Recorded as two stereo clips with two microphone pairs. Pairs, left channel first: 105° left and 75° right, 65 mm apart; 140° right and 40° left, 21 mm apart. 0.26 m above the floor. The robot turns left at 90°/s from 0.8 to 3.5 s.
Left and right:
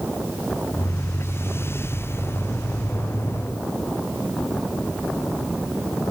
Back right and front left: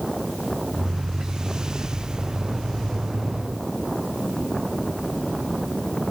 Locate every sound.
Only background noise.